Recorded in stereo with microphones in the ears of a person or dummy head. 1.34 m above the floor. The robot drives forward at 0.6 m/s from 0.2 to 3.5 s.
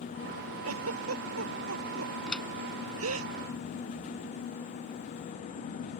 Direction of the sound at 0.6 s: 90° right.